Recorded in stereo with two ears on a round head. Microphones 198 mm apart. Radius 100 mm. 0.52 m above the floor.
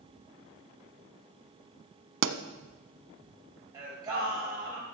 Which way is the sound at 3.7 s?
20° right (ahead or behind).